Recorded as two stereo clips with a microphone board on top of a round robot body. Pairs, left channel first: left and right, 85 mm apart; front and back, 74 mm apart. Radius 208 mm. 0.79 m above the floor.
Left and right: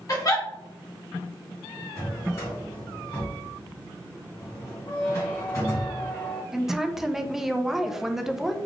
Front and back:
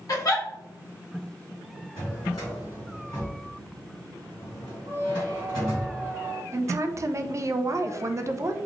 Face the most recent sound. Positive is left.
turn(degrees=-175)